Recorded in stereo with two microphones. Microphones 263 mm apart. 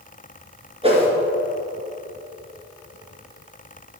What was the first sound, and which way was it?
A whoosh, 20° right (ahead or behind).